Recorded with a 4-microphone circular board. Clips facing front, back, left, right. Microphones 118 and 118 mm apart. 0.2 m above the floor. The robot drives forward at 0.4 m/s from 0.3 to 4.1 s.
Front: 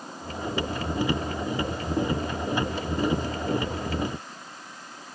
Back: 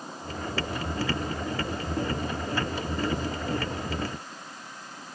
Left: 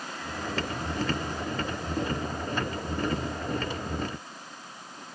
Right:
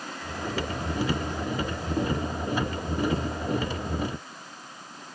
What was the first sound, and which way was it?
Only background noise.